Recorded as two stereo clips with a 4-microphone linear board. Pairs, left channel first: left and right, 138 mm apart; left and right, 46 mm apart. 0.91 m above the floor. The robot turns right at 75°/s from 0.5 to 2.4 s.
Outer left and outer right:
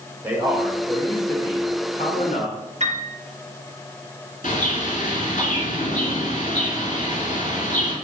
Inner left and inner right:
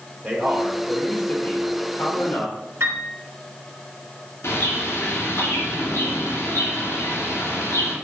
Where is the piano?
60° right (ahead or behind), 2.5 m.